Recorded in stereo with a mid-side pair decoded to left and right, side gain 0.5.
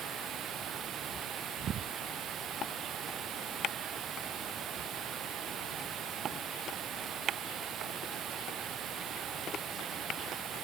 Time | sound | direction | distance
0.0 | running water | 55° right | ?